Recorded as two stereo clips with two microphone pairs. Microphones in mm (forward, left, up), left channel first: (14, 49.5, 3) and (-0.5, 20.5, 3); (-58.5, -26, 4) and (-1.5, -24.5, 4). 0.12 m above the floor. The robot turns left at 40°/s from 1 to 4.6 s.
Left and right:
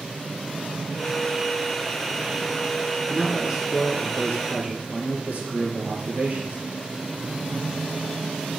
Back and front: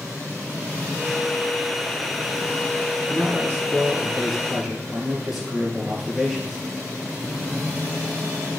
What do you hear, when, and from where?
3.1 s a man speaking: 25° right, 2.5 m; by 6.6 s 85° right, 2.5 m